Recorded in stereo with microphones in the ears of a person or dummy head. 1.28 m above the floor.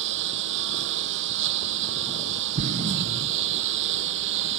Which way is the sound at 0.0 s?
70° right (ahead or behind).